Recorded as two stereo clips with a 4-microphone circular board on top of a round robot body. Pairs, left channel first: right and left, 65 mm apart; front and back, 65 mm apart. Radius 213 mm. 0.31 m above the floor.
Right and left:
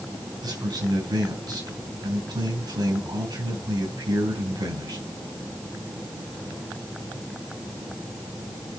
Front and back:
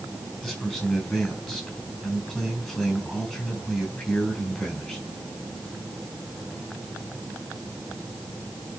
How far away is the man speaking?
About 4.5 m.